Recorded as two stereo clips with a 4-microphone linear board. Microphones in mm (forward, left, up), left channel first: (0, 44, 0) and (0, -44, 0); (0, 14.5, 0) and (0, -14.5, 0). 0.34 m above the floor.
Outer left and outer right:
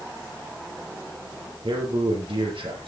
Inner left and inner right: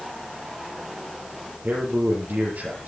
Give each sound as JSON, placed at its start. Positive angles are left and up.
{"t": 1.6, "sound": "a man speaking", "side_deg": -65, "distance_m": 8.5}